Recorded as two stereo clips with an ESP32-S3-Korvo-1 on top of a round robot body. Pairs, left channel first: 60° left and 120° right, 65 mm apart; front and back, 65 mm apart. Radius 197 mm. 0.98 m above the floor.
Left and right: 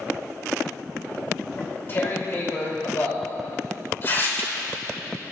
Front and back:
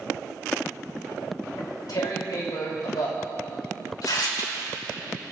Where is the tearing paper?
5° left, 3 m.